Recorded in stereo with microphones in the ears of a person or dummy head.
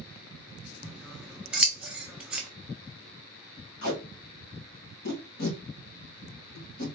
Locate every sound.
0.8 s scissors: 10° right (ahead or behind), 0.6 m
3.8 s tape being pulled: 55° left (ahead or behind), 1.4 m